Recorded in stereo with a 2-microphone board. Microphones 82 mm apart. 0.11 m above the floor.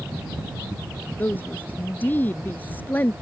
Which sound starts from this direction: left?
A woman speaking, at 1.2 s.